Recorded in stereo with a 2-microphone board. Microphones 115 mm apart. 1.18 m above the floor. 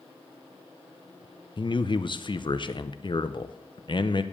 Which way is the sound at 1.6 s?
45° left (ahead or behind).